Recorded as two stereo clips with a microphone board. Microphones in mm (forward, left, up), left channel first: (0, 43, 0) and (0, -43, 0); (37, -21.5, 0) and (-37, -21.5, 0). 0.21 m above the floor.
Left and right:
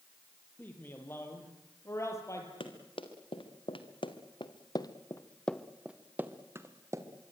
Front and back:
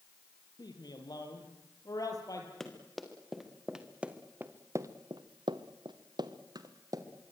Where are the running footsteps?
85° left, 4.5 m; by 7.0 s 140° right, 3 m.